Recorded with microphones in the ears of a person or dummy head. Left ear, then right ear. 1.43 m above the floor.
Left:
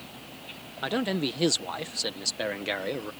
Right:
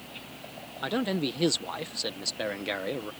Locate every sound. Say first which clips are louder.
0.8 s a man speaking: left 1 dB; 5° left (ahead or behind)